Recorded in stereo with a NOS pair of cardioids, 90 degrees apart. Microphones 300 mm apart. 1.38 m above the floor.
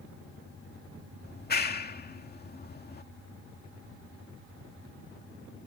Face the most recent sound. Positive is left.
turn(degrees=30)